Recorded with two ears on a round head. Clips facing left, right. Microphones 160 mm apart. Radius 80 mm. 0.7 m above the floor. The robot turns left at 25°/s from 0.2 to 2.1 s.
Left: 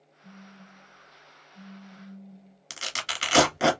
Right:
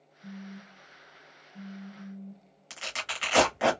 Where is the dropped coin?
I don't hear a dropped coin.